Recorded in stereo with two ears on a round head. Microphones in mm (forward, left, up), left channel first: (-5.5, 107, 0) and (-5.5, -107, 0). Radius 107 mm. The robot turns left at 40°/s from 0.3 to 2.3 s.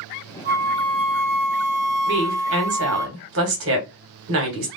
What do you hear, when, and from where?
0.5 s a flute: 40° right, 0.7 m; by 3.1 s 115° right, 0.7 m
2.1 s a woman speaking: 50° right (ahead or behind), 1.4 m; by 4.7 s 55° right (ahead or behind), 1.4 m